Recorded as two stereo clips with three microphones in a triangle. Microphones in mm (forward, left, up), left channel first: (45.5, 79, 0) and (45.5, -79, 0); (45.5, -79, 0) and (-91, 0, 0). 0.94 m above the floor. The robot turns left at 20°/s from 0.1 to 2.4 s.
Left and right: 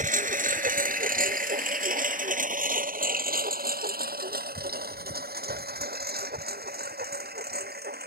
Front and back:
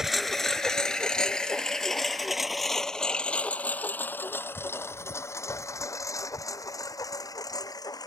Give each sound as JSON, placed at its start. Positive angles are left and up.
{"t": 0.0, "sound": "a lawn mower", "azimuth_deg": -125}